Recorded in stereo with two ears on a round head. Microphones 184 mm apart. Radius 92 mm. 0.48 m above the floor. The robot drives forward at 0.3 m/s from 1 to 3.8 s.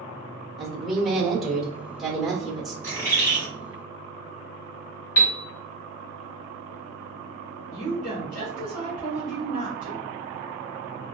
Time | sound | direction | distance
0.6 | a woman speaking | centre (ahead or behind) | 1.2 m
2.8 | a bird | 10° left (ahead or behind) | 1.6 m
5.2 | a piano | 60° left (ahead or behind) | 0.8 m
7.7 | a woman speaking | 40° left (ahead or behind) | 1.1 m